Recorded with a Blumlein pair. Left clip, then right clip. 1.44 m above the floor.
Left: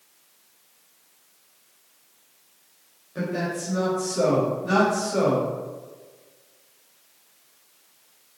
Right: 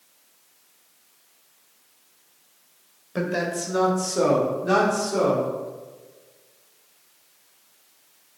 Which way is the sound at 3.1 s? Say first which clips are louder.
Right 3 dB; 40° right.